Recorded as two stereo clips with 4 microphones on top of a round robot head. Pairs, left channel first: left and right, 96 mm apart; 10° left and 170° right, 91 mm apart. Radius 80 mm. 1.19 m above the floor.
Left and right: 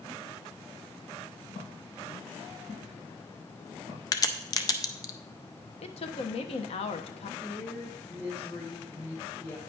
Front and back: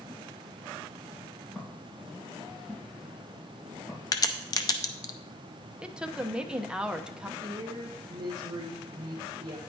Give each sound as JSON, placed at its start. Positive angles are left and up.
{"t": 1.6, "sound": "footsteps", "azimuth_deg": 75, "distance_m": 4.0}
{"t": 4.1, "sound": "a crack", "azimuth_deg": 45, "distance_m": 0.5}
{"t": 5.8, "sound": "a woman speaking", "azimuth_deg": 105, "distance_m": 1.0}
{"t": 7.4, "sound": "a woman speaking", "azimuth_deg": 145, "distance_m": 1.7}